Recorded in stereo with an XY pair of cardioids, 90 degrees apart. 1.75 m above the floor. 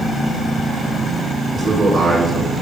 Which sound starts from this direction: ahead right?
A man speaking, at 1.5 s.